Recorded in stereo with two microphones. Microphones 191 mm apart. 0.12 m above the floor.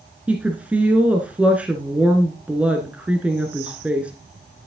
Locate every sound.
0.3 s a woman speaking: 5° right (ahead or behind), 1.4 m